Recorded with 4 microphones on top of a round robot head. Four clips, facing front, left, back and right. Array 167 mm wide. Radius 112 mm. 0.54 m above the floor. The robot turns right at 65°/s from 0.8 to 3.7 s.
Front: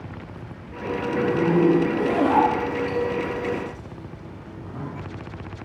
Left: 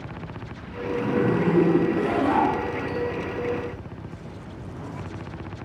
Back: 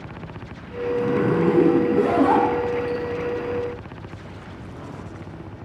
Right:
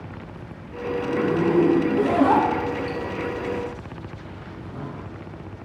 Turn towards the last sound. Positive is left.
turn(degrees=-40)